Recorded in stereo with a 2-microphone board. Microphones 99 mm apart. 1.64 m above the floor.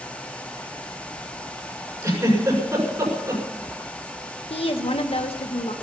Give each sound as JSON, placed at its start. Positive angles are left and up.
{"t": 2.0, "sound": "a giggle", "side_deg": -35, "distance_m": 6.0}
{"t": 4.5, "sound": "a woman speaking", "side_deg": 75, "distance_m": 1.7}